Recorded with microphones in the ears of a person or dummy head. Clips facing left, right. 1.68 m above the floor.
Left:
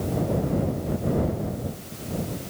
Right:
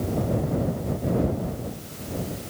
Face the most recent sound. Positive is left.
No sound to turn to.